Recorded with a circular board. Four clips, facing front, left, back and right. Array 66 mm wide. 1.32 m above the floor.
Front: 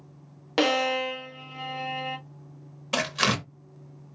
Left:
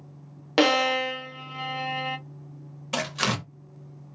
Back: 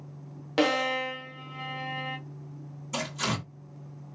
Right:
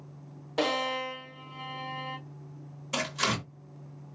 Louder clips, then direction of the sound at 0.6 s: Left 8 dB, front 2 dB; 75° left.